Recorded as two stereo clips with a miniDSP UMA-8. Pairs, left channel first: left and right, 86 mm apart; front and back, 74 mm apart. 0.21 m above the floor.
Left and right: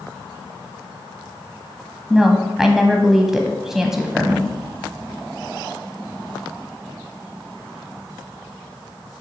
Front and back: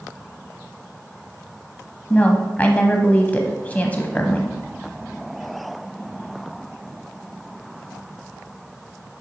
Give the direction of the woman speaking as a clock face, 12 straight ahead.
12 o'clock.